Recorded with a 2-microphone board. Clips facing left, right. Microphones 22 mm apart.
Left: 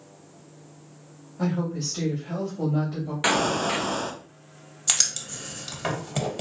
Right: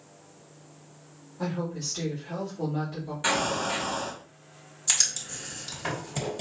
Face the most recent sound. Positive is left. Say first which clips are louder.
# left 2 dB
turn(degrees=35)  # may be behind; listen again after turning